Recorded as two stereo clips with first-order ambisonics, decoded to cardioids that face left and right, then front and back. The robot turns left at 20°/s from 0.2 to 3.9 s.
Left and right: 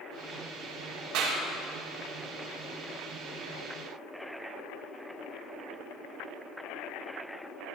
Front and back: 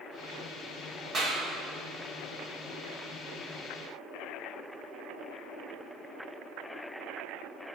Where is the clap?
115° right, 2.0 m; by 1.4 s 120° right, 2.0 m.